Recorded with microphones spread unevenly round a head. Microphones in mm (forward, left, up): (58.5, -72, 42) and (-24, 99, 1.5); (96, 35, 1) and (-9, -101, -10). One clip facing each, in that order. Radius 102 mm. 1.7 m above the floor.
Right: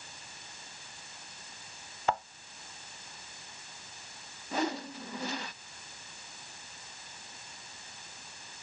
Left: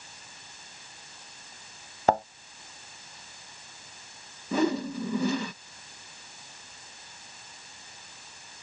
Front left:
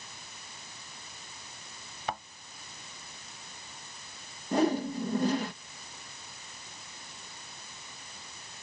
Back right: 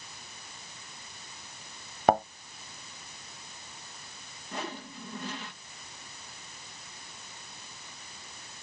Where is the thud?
175° left.